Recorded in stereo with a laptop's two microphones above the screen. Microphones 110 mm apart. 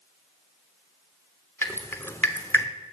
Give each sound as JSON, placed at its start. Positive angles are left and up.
{"t": 1.6, "sound": "dripping", "side_deg": 25, "distance_m": 0.8}